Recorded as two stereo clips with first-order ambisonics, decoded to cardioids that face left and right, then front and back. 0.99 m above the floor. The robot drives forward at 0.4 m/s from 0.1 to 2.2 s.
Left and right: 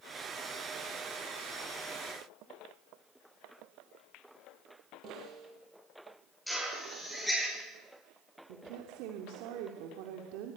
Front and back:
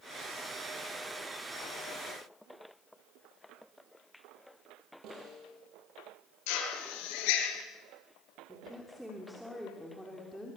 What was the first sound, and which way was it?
A snare drum, 140° right.